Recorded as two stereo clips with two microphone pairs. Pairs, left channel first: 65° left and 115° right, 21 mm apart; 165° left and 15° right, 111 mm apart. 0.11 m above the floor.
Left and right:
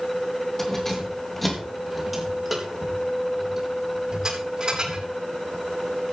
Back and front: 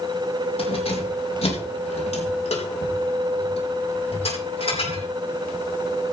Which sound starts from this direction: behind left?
Keys jangling, at 0.6 s.